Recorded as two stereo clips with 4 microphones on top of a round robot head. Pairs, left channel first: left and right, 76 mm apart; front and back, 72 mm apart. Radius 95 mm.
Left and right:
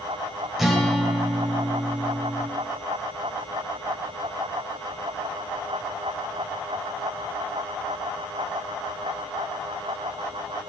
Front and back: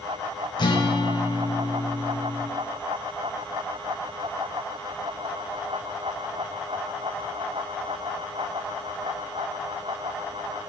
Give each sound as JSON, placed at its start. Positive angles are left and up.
{"t": 0.6, "sound": "a guitar", "azimuth_deg": -5, "distance_m": 1.5}